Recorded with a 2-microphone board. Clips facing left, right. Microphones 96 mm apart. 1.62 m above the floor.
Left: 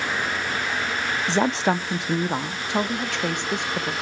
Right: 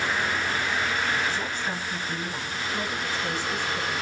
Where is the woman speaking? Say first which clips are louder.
Left 9 dB; 70° left (ahead or behind), 0.7 m; by 3.9 s 60° left (ahead or behind), 2 m.